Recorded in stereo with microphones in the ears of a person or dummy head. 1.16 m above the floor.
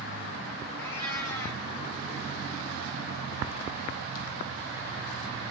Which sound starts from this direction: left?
A cat meowing, at 0.8 s.